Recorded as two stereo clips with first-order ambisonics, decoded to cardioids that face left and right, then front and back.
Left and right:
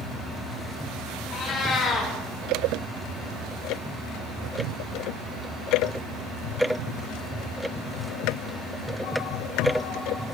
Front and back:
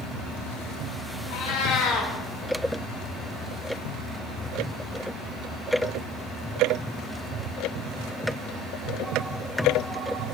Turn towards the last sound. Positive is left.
turn(degrees=35)